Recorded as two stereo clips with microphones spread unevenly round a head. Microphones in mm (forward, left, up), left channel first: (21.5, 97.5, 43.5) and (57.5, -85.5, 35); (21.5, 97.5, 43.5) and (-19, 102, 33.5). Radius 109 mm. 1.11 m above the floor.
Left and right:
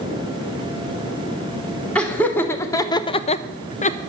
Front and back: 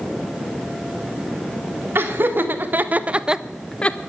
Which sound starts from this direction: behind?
Laughter, at 1.9 s.